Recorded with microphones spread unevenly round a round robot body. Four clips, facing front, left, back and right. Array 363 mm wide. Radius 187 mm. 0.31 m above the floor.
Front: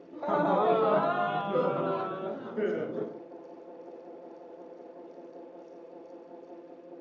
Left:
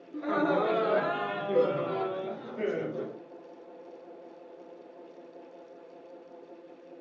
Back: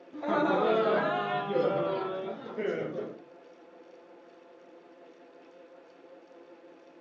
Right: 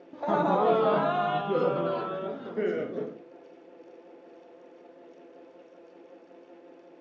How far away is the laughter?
About 1.9 m.